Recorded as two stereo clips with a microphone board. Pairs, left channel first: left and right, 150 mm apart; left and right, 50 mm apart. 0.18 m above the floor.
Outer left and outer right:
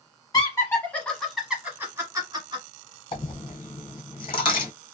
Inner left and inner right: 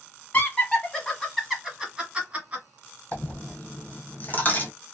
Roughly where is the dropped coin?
Left.